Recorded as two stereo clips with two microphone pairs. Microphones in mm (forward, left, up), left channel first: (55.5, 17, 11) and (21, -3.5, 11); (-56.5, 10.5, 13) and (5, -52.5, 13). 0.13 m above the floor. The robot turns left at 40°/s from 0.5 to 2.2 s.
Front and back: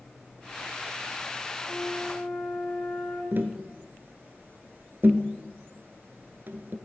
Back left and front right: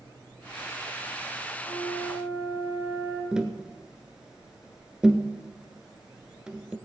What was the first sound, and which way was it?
A flute, 130° left.